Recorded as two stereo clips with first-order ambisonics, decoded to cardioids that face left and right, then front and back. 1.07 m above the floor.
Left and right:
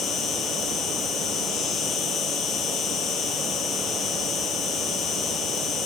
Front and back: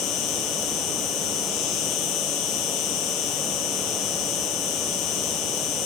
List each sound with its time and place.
0.0 s an insect: 30° left, 3.5 m